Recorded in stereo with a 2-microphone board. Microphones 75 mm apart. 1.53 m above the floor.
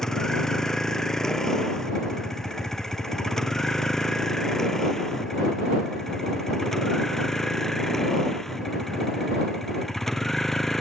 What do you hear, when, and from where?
0.0 s a vehicle: 5° left (ahead or behind)